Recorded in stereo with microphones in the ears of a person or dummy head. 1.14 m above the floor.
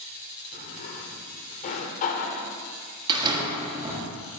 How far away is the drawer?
About 1.0 m.